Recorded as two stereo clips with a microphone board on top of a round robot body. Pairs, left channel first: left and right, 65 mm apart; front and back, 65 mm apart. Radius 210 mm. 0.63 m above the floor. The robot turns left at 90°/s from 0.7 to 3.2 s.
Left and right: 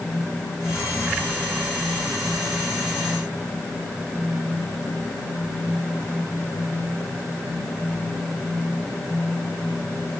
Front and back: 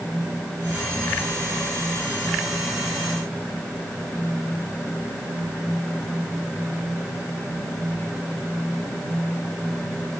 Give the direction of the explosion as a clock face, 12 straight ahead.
I don't hear an explosion.